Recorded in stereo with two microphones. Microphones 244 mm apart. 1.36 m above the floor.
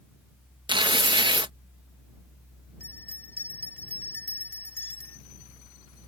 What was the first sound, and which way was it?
Tearing paper, 20° right (ahead or behind).